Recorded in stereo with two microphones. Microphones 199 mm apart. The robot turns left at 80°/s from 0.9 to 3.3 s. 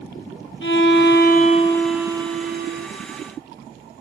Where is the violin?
80° left, 1.1 m; by 2.9 s 75° right, 1.1 m.